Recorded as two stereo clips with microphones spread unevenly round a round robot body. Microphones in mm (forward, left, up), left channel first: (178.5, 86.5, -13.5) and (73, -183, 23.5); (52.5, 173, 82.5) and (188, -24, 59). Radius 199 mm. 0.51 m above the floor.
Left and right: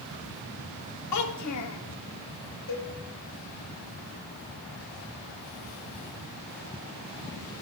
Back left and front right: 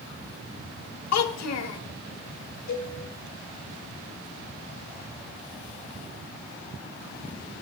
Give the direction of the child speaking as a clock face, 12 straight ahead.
8 o'clock.